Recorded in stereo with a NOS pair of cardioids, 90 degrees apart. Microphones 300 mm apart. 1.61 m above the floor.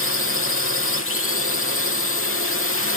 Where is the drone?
45° left.